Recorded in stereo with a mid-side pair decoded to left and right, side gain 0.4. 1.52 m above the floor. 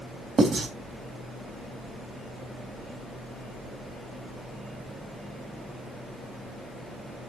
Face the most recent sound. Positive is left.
turn(degrees=-60)